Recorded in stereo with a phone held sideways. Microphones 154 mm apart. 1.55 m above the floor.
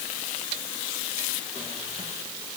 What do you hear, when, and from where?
Only background noise.